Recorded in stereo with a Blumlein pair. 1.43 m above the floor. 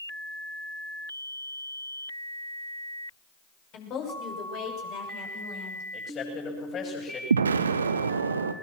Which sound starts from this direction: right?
An explosion, at 7.3 s.